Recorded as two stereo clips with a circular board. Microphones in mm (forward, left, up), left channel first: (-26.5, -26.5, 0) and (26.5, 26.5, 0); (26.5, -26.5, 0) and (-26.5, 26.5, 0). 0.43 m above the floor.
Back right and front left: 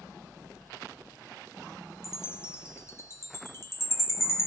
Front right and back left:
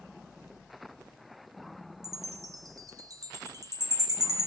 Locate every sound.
2.0 s a chime: 170° left, 2.5 m